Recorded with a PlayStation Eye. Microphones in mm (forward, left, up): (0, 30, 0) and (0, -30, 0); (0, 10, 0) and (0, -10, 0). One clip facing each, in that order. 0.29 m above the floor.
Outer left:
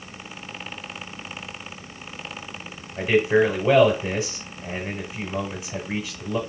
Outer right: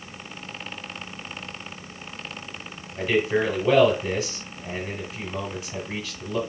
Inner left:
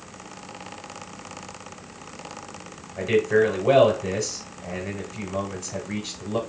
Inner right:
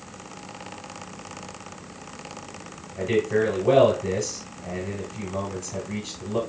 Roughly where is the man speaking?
Left.